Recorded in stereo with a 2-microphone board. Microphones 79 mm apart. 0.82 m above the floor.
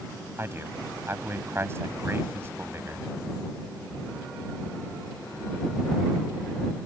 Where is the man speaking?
30° right (ahead or behind).